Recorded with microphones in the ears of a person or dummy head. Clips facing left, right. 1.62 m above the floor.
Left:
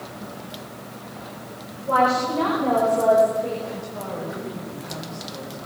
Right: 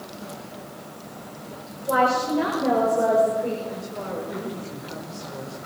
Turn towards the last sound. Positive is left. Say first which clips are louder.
# even
turn(degrees=-25)  # may be behind; listen again after turning